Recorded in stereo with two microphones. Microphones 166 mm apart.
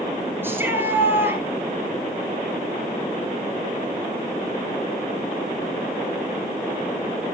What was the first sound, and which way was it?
A shout, 15° right (ahead or behind).